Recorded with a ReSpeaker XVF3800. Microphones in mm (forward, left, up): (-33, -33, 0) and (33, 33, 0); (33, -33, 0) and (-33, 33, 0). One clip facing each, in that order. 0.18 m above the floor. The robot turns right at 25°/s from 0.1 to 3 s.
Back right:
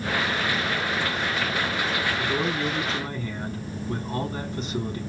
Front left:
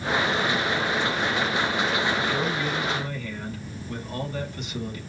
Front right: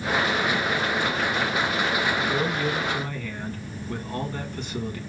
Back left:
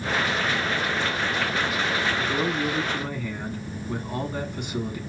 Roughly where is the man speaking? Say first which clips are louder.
Even, even; behind.